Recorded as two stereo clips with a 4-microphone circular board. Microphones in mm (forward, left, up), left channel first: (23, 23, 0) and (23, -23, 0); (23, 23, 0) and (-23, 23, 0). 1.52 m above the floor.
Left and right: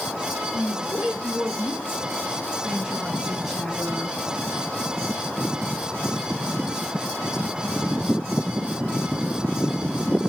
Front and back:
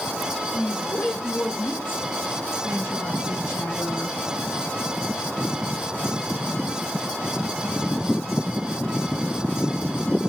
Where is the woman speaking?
45° right, 5 m; by 4.2 s 20° left, 1.5 m.